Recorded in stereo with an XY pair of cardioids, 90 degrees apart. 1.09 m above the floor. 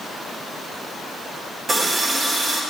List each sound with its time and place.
1.7 s a running tap: 40° right, 2.5 m